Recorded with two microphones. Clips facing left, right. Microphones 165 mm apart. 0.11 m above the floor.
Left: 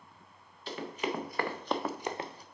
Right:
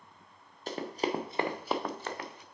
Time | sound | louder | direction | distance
0.7 | running footsteps | right 3 dB | 45° right (ahead or behind) | 1.6 m